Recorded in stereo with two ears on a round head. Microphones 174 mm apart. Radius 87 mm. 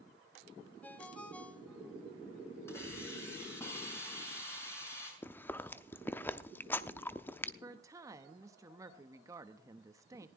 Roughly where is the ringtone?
Centre.